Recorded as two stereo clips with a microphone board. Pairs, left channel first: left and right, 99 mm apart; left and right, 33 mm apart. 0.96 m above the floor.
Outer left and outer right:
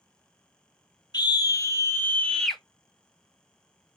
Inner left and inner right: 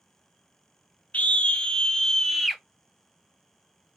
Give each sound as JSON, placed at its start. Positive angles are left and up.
{"t": 1.1, "sound": "a scream", "side_deg": 45, "distance_m": 1.1}